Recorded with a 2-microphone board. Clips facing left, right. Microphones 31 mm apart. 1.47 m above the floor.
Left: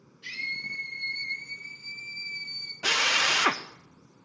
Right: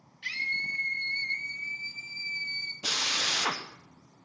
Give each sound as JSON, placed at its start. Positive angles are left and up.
{"t": 0.2, "sound": "a scream", "side_deg": -65, "distance_m": 2.0}
{"t": 2.8, "sound": "a drill", "side_deg": 80, "distance_m": 0.6}